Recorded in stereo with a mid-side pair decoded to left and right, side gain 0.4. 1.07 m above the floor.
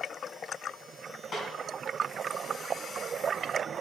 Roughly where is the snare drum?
Ahead left.